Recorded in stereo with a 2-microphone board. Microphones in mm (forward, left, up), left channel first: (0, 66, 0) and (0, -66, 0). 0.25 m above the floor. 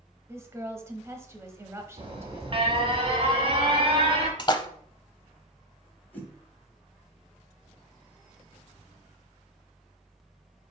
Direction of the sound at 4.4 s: 35° left (ahead or behind).